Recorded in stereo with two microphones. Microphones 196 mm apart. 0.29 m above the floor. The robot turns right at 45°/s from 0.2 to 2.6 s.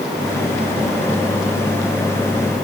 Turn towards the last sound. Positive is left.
No sound to turn to.